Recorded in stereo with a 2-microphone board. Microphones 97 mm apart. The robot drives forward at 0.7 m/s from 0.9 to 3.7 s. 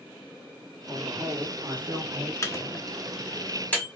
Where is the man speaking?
15° right (ahead or behind), 2.5 m; by 2.3 s 25° right (ahead or behind), 1.6 m.